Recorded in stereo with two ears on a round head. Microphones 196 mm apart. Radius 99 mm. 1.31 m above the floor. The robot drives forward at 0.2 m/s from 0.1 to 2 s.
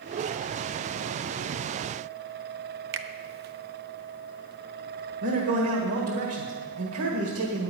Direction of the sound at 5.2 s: 75° right (ahead or behind).